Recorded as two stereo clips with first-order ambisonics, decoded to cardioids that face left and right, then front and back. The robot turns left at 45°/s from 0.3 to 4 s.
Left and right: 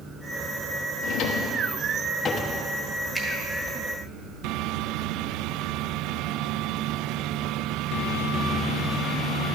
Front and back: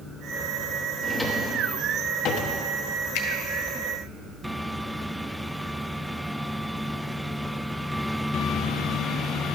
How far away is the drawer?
About 0.8 m.